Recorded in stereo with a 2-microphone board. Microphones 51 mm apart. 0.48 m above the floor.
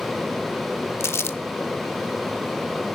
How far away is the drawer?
No drawer in this recording.